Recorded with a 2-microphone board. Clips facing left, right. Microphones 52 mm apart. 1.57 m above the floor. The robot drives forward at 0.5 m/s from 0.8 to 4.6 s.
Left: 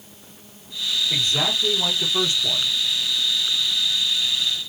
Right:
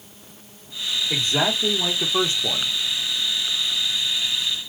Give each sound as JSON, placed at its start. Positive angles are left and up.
{"t": 1.1, "sound": "a man speaking", "side_deg": -25, "distance_m": 1.9}